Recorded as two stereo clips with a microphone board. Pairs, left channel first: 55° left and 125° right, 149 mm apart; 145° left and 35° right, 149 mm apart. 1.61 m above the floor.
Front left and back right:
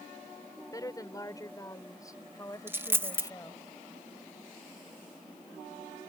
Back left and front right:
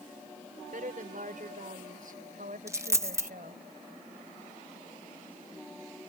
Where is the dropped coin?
70° right.